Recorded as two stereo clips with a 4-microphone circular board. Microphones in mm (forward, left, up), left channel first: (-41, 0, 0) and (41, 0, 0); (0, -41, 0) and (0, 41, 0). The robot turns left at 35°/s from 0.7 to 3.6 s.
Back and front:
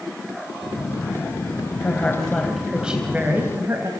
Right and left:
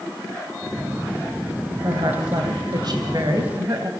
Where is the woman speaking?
115° left, 2 m; by 3.9 s 50° left, 2 m.